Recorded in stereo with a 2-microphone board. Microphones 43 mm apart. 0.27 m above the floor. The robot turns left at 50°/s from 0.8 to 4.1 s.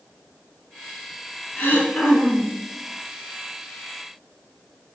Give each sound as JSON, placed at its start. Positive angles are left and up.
{"t": 1.6, "sound": "throat clearing", "azimuth_deg": 55, "distance_m": 2.5}